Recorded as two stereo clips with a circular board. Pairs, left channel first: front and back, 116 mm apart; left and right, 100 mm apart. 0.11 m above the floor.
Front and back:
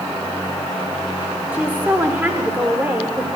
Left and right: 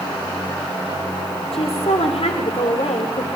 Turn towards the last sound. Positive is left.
turn(degrees=105)